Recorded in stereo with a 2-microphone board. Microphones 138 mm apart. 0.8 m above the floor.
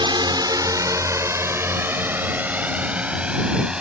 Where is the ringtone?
I don't hear a ringtone.